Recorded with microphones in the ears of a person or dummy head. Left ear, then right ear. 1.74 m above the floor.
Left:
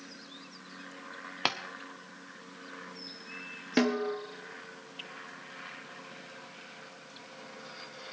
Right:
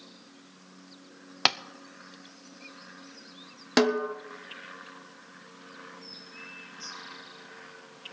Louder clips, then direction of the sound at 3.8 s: Right 4 dB; 45° right (ahead or behind).